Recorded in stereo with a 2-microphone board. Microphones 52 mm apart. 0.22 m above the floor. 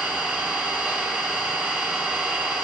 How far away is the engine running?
About 0.8 m.